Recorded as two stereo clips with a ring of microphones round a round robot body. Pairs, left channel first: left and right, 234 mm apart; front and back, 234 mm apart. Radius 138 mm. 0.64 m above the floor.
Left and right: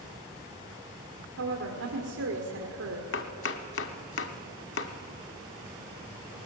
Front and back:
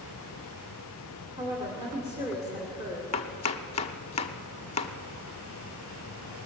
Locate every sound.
1.4 s a woman speaking: 105° right, 2 m
3.1 s chopping: 55° left, 0.7 m